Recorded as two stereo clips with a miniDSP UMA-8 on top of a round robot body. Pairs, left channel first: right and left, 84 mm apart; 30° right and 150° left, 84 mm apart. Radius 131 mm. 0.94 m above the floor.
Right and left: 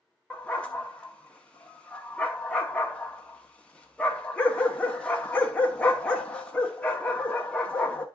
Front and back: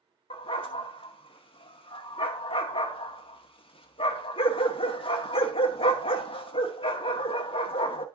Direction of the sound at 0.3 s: 10° right.